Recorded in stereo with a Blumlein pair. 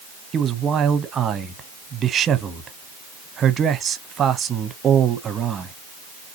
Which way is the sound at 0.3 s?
25° right.